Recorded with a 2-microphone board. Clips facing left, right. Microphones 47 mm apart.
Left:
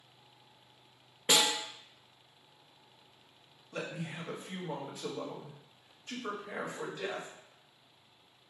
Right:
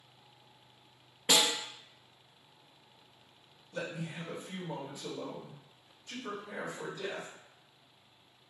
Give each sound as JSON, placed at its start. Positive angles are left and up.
{"t": 1.3, "sound": "a snare drum", "side_deg": 20, "distance_m": 0.9}
{"t": 3.7, "sound": "a man speaking", "side_deg": 65, "distance_m": 1.1}